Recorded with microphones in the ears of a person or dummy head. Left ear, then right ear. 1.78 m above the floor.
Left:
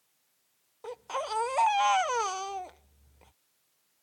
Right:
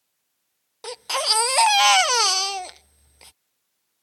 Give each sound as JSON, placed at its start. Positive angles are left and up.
{"t": 0.8, "sound": "a baby crying", "side_deg": -45}